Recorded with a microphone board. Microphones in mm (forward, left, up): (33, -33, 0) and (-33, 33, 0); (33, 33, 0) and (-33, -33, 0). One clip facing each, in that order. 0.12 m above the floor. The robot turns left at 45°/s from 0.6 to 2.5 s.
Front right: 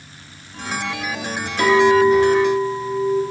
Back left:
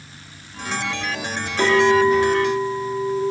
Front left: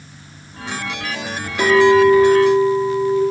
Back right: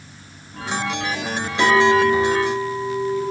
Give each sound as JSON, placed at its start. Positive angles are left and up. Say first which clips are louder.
{"t": 1.6, "sound": "a clink", "louder": "front right 2 dB, front left 4 dB", "azimuth_deg": 100, "distance_m": 0.9}